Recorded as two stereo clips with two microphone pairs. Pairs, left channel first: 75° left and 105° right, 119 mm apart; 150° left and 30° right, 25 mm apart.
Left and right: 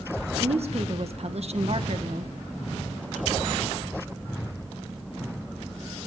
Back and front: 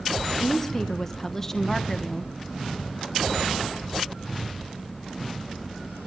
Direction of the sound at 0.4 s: 130° right.